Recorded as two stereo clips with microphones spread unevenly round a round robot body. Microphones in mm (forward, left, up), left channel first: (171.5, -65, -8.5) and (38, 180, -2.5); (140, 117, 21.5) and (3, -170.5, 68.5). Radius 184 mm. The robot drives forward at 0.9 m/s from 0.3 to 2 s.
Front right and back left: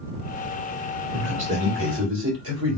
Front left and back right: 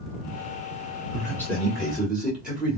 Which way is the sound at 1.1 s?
120° left.